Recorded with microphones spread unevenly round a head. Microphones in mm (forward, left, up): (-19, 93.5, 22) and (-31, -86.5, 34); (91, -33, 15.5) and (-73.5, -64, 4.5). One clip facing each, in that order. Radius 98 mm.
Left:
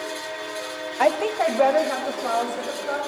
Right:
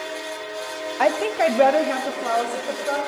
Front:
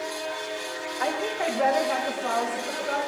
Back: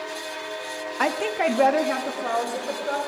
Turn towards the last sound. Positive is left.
turn(degrees=-130)